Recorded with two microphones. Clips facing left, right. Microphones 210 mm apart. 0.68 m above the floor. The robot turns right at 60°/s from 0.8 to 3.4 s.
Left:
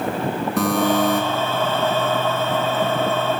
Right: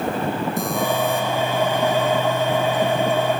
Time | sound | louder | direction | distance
0.6 | a buzzer | left 8 dB | 80° left | 7 m